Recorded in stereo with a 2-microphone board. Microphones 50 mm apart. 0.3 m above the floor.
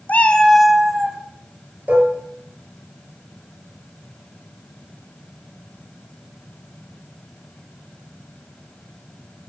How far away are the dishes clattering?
About 4 m.